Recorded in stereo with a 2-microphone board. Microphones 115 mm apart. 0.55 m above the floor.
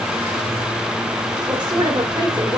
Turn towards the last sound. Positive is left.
turn(degrees=-35)  # may be behind; listen again after turning